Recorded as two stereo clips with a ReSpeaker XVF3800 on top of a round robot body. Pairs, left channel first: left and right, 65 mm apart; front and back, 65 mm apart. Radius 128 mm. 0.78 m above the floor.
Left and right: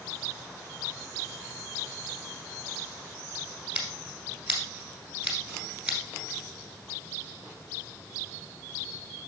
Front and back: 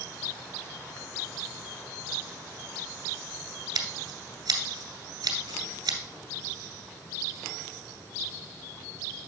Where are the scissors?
170° right, 2.0 m.